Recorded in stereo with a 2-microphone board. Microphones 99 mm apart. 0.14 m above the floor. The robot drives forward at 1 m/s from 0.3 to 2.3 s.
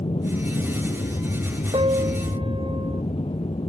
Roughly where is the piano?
Right.